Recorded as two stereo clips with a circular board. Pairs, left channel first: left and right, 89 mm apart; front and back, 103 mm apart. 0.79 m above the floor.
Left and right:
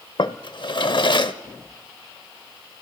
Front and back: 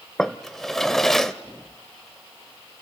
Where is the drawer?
85° left, 0.8 m.